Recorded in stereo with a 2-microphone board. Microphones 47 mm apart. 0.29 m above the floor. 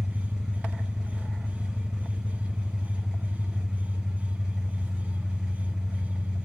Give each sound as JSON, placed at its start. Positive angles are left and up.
{"t": 0.0, "sound": "an engine running", "side_deg": -15, "distance_m": 2.0}